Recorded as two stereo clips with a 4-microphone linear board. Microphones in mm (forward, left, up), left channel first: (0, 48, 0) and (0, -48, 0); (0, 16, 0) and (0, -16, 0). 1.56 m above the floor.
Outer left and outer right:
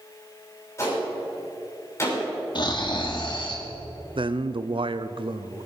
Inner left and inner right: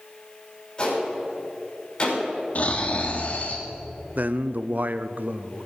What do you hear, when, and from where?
0.8 s a gunshot: 25° left (ahead or behind), 5.5 m
2.5 s snoring: 50° left (ahead or behind), 1.8 m
4.2 s a man speaking: 60° right (ahead or behind), 0.6 m